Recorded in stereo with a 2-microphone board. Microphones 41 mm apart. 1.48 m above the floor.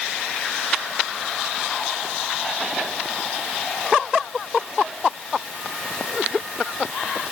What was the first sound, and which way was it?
Only background noise.